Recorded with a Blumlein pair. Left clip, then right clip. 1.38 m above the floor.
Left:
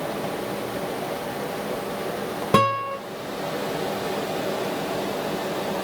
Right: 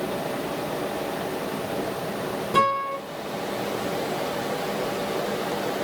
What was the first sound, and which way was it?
A guitar, 50° left.